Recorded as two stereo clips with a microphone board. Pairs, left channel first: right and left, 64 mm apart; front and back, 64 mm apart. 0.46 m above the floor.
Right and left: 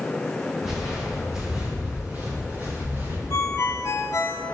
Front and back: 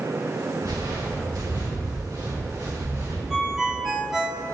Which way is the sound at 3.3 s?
100° right.